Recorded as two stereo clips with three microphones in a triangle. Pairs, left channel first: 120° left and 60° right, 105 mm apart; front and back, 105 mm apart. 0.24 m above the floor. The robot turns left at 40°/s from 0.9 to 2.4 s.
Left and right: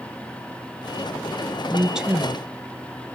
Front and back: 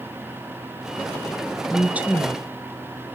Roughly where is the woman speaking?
Behind right.